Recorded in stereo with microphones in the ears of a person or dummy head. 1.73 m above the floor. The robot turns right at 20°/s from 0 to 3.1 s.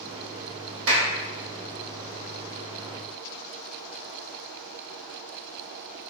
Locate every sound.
0.9 s a clap: 70° right (ahead or behind), 3 m; by 1.1 s 65° right (ahead or behind), 3 m